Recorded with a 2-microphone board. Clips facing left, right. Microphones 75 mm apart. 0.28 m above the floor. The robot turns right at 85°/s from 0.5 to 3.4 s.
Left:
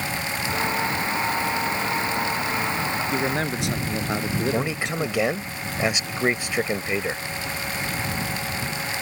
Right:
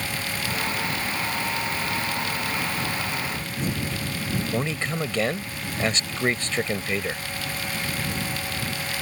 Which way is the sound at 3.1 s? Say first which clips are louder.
Left 6 dB; 55° left (ahead or behind).